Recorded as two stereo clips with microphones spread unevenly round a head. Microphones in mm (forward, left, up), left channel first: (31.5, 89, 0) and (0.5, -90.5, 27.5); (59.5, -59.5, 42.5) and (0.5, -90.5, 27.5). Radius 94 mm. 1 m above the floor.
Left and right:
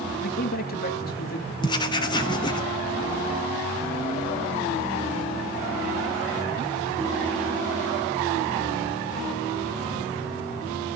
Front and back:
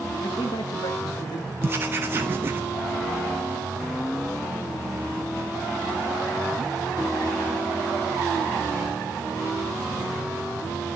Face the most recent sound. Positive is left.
turn(degrees=145)